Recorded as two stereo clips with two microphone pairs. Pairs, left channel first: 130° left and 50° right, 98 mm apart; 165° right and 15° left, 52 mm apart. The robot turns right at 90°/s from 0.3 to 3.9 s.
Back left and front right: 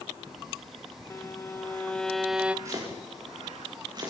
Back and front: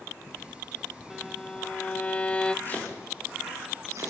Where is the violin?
115° left, 0.8 m; by 2.5 s 115° right, 0.8 m.